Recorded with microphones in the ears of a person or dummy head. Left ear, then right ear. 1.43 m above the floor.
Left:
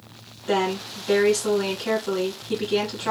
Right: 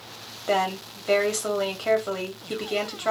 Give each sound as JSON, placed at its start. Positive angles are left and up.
{"t": 0.5, "sound": "a woman speaking", "side_deg": -40, "distance_m": 1.6}